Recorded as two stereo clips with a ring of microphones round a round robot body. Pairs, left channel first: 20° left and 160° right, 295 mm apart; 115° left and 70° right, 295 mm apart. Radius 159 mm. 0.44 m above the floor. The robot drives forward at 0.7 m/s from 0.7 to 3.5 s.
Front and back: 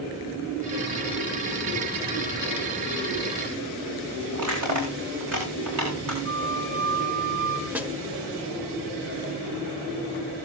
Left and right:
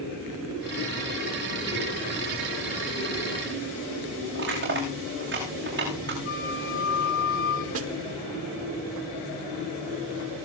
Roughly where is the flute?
Behind.